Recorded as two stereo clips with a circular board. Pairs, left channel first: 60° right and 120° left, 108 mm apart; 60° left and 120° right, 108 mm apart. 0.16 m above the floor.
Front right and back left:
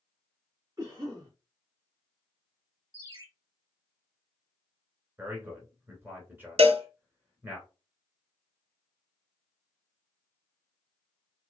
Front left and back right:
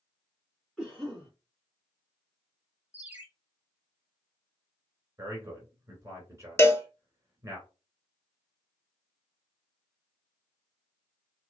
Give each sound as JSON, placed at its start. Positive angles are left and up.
{"t": 0.8, "sound": "a cough", "azimuth_deg": 150, "distance_m": 1.6}
{"t": 2.9, "sound": "a ringtone", "azimuth_deg": 165, "distance_m": 1.5}
{"t": 5.2, "sound": "a man speaking", "azimuth_deg": -175, "distance_m": 1.7}
{"t": 6.6, "sound": "a cowbell", "azimuth_deg": 125, "distance_m": 0.5}